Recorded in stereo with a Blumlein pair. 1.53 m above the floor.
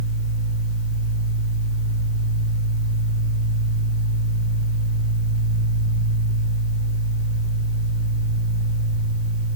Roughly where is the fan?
Ahead right.